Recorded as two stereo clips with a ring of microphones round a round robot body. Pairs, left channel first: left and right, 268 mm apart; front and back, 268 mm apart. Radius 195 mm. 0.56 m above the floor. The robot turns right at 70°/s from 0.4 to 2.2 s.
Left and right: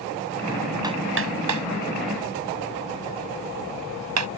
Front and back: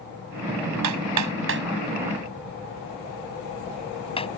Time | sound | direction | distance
0.8 | hammering | 170° right | ?